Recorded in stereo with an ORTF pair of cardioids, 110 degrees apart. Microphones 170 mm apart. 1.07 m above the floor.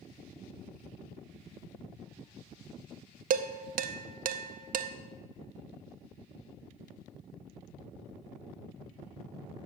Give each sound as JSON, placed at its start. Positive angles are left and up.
{"t": 3.3, "sound": "dishes clattering", "azimuth_deg": -60, "distance_m": 0.7}